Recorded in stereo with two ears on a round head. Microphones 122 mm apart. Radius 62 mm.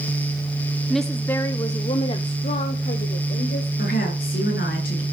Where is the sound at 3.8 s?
70° left (ahead or behind), 6 m.